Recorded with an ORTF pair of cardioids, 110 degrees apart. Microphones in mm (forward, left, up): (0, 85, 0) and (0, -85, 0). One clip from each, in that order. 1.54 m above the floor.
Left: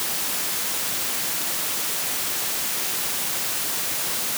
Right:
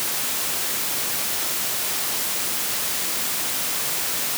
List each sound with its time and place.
Only background noise.